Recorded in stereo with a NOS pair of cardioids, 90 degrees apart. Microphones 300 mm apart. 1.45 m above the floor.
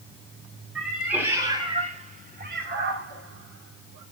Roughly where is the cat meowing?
Ahead.